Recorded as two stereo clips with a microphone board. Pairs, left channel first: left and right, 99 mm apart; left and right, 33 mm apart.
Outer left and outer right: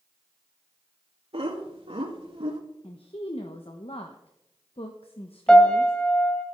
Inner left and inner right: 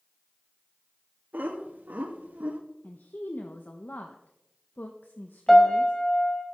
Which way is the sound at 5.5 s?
10° left (ahead or behind).